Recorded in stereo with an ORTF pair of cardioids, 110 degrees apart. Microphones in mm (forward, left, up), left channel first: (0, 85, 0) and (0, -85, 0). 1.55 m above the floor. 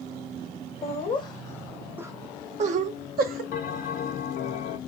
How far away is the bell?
About 0.7 m.